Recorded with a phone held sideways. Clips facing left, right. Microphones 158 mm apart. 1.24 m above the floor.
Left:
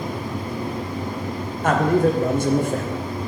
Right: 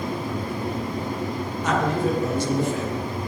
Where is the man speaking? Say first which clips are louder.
Left 5 dB; 55° left (ahead or behind), 1.0 m.